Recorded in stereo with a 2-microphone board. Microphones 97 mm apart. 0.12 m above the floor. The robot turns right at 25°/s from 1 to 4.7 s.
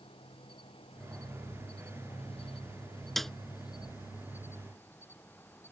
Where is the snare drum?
Centre (ahead or behind); by 3.3 s 5° left (ahead or behind).